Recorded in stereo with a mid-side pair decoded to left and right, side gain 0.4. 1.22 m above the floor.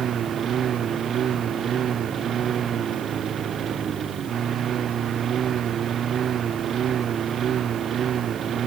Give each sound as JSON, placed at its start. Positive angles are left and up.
{"t": 0.0, "sound": "a lawn mower", "azimuth_deg": -60}